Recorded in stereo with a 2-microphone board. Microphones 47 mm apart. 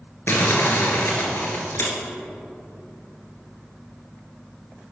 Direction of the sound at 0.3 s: 55° left (ahead or behind).